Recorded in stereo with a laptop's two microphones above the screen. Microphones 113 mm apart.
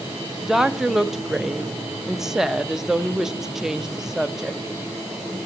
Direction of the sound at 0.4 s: 5° right (ahead or behind).